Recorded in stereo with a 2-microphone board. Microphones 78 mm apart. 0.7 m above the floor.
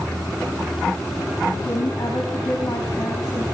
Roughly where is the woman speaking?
Left.